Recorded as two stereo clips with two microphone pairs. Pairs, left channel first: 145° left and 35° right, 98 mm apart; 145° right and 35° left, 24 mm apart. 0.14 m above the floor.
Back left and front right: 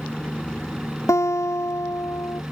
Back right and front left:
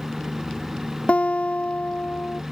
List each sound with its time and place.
0.0 s a helicopter: 70° left; by 2.5 s 50° left
1.1 s a guitar: 155° right